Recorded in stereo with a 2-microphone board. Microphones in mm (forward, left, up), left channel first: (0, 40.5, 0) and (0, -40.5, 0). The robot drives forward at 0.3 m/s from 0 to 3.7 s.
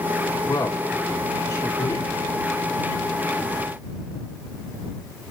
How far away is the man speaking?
About 2 m.